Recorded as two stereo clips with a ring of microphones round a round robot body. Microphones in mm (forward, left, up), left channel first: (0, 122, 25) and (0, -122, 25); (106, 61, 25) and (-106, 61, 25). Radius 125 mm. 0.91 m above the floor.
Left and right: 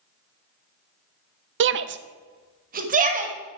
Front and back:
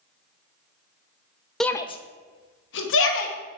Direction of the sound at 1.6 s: 90° right.